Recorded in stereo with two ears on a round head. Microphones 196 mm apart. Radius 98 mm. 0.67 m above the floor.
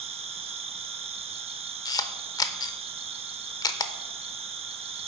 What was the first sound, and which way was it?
An insect, 25° right (ahead or behind).